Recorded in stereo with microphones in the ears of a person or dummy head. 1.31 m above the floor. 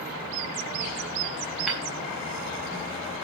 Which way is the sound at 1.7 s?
5° right (ahead or behind).